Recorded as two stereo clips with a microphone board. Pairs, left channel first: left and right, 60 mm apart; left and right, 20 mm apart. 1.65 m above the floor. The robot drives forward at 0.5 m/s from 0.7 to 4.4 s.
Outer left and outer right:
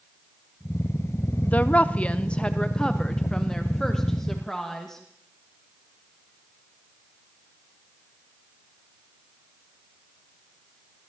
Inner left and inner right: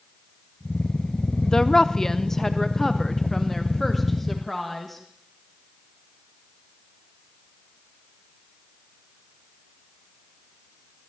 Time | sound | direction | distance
1.4 | a woman speaking | 25° left (ahead or behind) | 0.5 m